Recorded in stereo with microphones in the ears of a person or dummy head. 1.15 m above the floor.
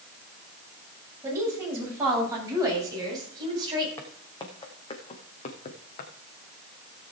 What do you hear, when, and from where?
1.2 s a woman speaking: 15° right (ahead or behind), 7.5 m; by 3.9 s 25° right (ahead or behind), 8.5 m
4.0 s footsteps: 15° left (ahead or behind), 3 m; by 6.1 s 50° left (ahead or behind), 2.5 m